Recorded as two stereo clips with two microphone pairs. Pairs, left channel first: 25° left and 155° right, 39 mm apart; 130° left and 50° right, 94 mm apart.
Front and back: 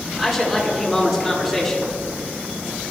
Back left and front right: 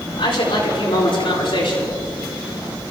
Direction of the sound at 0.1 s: 120° left.